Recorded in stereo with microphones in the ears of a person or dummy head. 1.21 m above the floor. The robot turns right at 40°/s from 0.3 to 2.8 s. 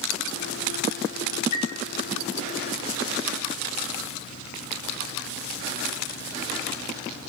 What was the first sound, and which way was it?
A chime, 45° left (ahead or behind).